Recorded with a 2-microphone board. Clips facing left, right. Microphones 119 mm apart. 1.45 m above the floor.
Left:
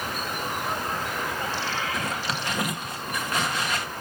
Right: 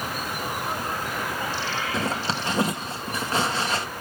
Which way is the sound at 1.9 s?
30° right (ahead or behind).